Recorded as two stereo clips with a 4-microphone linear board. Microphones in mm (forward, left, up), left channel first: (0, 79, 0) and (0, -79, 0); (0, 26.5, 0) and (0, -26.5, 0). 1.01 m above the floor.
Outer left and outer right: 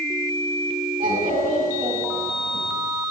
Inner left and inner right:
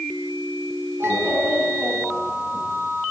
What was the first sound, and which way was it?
A child speaking, 65° right (ahead or behind).